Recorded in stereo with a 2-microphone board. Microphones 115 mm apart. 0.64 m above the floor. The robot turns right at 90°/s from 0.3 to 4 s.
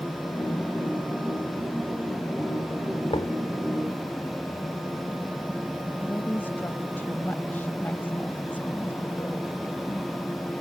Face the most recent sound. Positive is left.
turn(degrees=15)  # may be behind; listen again after turning